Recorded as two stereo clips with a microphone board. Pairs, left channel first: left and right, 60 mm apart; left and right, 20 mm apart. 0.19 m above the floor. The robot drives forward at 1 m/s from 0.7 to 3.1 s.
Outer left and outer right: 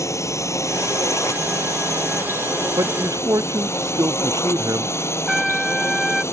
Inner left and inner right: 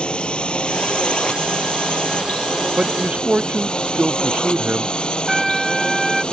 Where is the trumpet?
Centre (ahead or behind).